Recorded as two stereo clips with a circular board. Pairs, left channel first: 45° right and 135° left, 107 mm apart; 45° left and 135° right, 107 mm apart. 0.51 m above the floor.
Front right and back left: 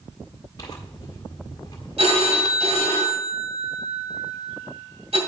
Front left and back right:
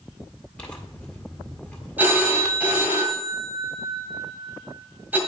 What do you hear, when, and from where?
0.6 s tearing paper: 25° right, 1.5 m
2.0 s a phone ringing: 155° left, 2 m